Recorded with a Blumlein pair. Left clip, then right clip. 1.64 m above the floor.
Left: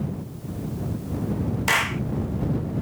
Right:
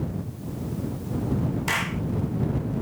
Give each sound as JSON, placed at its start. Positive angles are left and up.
{"t": 1.7, "sound": "a clap", "azimuth_deg": 15}